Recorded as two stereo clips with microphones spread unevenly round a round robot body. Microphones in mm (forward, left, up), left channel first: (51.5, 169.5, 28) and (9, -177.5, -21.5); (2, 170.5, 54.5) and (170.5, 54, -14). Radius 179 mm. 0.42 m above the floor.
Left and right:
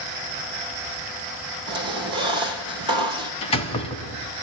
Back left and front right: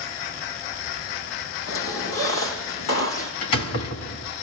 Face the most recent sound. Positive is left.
turn(degrees=160)